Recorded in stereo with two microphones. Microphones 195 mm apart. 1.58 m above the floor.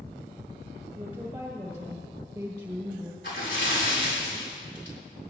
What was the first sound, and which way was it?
A woman speaking, 10° right (ahead or behind).